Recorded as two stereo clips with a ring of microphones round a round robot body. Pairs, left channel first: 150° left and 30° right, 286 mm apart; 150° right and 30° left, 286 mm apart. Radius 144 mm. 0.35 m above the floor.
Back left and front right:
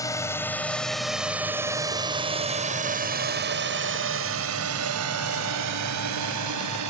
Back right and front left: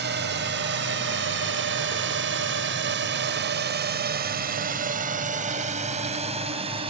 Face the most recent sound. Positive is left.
turn(degrees=-40)